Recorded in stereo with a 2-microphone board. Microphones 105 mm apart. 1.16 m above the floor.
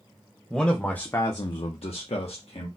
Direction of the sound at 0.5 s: 5° left (ahead or behind).